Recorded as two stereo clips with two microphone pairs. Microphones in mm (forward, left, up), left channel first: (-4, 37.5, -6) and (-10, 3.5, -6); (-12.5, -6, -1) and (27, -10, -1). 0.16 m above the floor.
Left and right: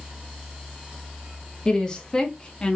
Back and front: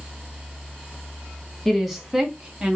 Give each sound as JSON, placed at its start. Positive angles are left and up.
{"t": 1.6, "sound": "a woman speaking", "azimuth_deg": 90, "distance_m": 1.0}